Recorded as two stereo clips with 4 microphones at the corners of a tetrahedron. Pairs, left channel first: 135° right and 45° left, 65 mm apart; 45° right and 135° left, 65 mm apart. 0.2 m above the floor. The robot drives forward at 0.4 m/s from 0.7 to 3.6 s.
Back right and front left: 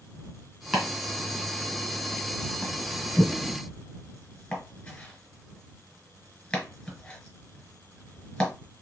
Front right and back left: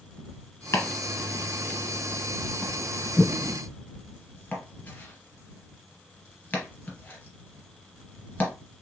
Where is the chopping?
35° right, 2 m; by 8.5 s 80° right, 1.8 m.